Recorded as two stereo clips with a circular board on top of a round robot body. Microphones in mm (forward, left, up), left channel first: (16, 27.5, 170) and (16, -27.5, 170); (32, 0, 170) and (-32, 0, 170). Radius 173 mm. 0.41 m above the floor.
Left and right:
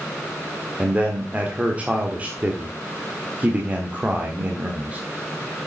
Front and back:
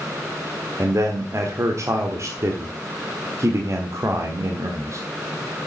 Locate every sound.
0.8 s a man speaking: 150° right, 1.7 m